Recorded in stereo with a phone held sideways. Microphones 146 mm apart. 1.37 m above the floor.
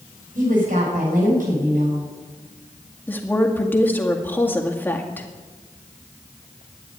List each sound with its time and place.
0.3 s a woman speaking: 70° right (ahead or behind), 8 m
3.1 s a woman speaking: 15° left (ahead or behind), 2 m